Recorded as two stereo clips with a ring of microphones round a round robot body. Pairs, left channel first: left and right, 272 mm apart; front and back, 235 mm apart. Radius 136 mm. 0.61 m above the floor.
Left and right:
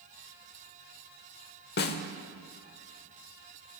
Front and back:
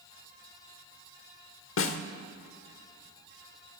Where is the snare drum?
35° left, 0.9 m.